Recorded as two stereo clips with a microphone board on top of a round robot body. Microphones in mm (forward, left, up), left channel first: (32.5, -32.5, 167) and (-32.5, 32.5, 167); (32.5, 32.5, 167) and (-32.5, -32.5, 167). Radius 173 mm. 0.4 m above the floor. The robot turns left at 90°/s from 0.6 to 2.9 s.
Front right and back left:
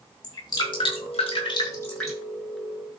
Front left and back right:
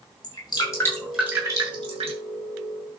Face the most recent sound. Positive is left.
turn(degrees=155)